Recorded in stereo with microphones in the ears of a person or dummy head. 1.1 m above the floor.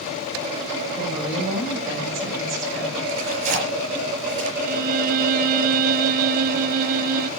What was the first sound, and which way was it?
A woman speaking, 15° right (ahead or behind).